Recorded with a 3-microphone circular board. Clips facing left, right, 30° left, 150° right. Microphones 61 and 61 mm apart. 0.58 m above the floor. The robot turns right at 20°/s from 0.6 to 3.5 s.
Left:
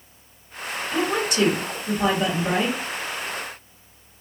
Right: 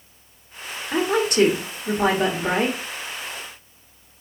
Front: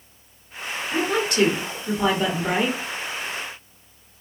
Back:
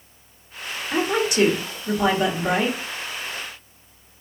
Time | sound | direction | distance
0.9 | a woman speaking | 90° right | 1.0 m